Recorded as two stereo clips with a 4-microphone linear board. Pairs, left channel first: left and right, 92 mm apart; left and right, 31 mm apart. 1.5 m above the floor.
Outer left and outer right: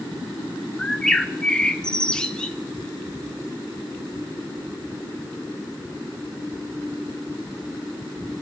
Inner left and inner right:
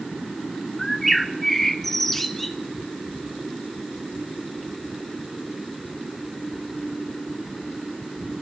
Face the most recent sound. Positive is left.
turn(degrees=5)  # may be behind; listen again after turning